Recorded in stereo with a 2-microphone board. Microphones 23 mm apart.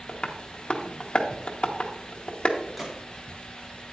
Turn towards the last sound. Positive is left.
turn(degrees=-10)  # may be behind; listen again after turning